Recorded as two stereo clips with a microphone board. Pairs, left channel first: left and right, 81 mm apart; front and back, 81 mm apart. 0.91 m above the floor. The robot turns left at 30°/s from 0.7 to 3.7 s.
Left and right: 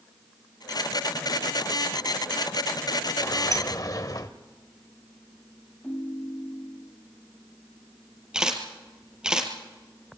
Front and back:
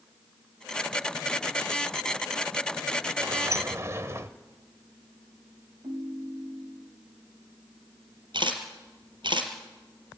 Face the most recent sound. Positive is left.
turn(degrees=-170)